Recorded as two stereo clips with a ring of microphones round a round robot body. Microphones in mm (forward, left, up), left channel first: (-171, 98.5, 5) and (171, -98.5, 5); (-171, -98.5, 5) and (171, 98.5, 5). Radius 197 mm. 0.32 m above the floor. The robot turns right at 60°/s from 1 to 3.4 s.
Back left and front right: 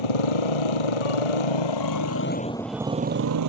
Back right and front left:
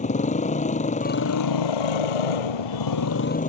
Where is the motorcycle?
135° left; by 3.5 s 80° right.